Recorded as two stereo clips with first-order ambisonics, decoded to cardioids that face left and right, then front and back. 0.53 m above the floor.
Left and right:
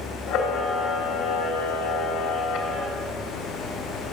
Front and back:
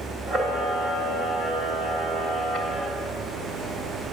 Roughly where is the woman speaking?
No woman speaking in this recording.